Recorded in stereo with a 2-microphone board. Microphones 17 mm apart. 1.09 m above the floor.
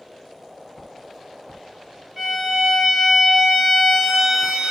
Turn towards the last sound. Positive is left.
turn(degrees=-10)  # may be behind; listen again after turning